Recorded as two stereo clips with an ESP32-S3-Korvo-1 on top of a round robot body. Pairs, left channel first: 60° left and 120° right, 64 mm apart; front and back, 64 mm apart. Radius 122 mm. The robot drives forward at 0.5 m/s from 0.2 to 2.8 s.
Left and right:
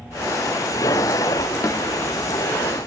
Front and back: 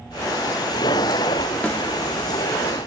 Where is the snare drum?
60° left, 1.5 m; by 1.8 s 65° left, 1.5 m.